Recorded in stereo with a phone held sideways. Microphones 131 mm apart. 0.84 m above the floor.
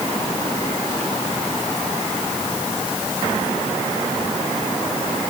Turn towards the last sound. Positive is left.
No sound to turn to.